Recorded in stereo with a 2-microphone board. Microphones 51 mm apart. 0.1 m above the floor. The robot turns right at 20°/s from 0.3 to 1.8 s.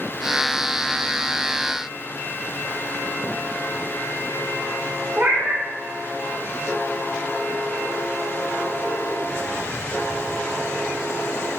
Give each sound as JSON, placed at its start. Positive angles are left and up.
{"t": 5.2, "sound": "a cat meowing", "side_deg": -35, "distance_m": 1.1}